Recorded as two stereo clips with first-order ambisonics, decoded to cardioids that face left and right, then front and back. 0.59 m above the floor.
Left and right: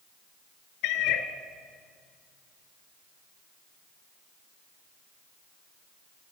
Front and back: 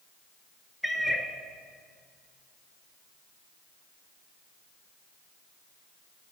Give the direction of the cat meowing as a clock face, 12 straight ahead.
9 o'clock.